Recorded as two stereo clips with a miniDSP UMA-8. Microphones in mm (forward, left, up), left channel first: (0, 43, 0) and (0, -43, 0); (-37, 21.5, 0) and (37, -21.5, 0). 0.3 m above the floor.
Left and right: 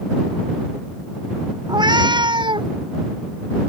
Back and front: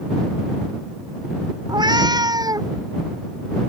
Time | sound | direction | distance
1.7 | a cat meowing | 60° right | ?